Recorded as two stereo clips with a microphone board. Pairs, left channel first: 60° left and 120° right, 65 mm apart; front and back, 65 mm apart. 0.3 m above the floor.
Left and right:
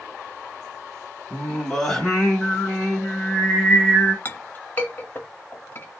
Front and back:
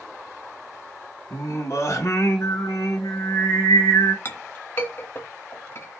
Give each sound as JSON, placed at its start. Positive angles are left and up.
{"t": 1.3, "sound": "singing", "azimuth_deg": -20, "distance_m": 1.6}
{"t": 4.2, "sound": "a clink", "azimuth_deg": 25, "distance_m": 0.8}